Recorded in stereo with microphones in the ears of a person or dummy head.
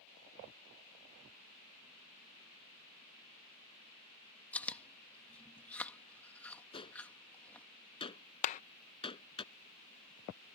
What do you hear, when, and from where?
4.5 s chewing: 10° left (ahead or behind)
6.7 s a gunshot: 30° left (ahead or behind)
8.4 s a clap: 45° left (ahead or behind)